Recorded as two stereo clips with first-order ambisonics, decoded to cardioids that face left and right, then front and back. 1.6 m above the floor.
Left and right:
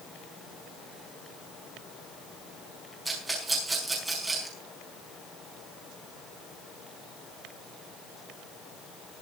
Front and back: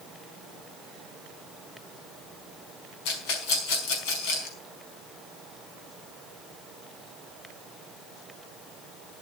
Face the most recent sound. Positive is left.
turn(degrees=-5)